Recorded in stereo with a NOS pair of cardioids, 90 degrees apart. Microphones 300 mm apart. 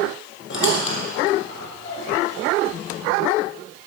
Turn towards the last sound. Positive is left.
turn(degrees=40)